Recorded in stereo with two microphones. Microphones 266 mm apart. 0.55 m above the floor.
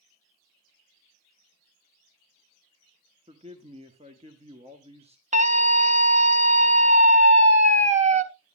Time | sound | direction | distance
3.3 | a man speaking | 25° right (ahead or behind) | 1.1 m
5.3 | a scream | 25° right (ahead or behind) | 1.9 m